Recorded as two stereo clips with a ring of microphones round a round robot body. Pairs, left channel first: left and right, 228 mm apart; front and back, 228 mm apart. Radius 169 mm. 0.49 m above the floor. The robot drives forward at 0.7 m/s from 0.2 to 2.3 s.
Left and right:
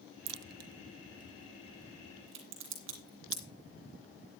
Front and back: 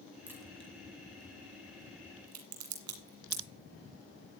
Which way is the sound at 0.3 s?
95° right.